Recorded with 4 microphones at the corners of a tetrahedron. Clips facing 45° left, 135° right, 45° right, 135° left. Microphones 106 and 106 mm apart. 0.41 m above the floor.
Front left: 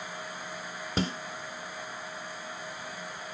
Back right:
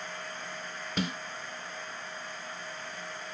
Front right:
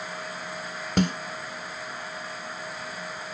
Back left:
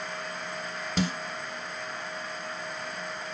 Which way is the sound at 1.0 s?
10° right.